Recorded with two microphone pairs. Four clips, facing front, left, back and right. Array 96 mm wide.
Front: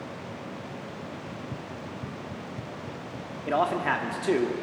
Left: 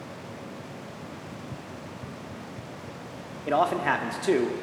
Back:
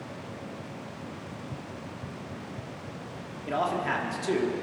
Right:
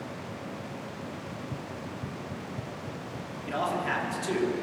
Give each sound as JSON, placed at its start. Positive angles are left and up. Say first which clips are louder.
{"t": 1.3, "sound": "running footsteps", "louder": "right 2 dB, front 2 dB", "azimuth_deg": 15, "distance_m": 0.7}
{"t": 3.5, "sound": "a man speaking", "louder": "left 6 dB, front 3 dB", "azimuth_deg": 65, "distance_m": 1.5}